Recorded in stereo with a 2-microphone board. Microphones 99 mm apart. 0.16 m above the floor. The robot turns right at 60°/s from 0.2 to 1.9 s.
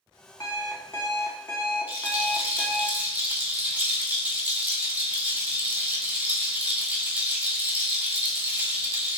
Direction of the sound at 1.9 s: 15° right (ahead or behind).